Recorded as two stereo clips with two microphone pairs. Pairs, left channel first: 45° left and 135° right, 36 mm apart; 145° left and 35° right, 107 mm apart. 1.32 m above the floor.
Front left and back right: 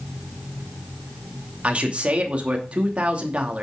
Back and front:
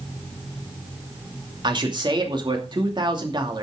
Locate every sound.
1.6 s a man speaking: 75° right, 2.5 m